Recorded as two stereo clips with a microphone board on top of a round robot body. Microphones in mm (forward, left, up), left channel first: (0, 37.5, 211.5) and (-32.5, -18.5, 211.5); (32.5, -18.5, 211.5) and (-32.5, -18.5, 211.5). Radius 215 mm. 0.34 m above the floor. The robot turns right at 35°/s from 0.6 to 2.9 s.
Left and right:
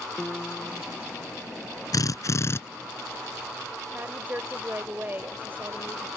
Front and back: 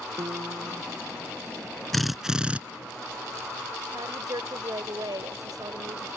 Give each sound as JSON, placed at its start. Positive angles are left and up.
{"t": 0.2, "sound": "a piano", "azimuth_deg": 145}
{"t": 1.9, "sound": "a drill", "azimuth_deg": 90}
{"t": 3.9, "sound": "a woman speaking", "azimuth_deg": 180}